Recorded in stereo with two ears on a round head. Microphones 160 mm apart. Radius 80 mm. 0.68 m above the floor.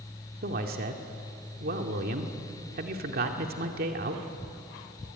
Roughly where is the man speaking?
Right.